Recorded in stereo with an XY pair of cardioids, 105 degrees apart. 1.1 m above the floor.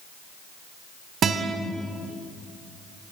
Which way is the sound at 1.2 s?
65° right.